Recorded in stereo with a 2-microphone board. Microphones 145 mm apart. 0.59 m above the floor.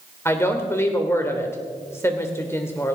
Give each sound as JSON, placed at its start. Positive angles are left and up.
{"t": 0.2, "sound": "a woman speaking", "side_deg": 15, "distance_m": 2.5}